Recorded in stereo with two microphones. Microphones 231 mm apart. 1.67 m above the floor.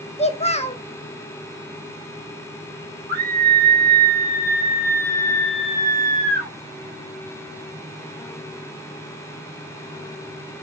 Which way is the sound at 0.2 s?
30° left (ahead or behind).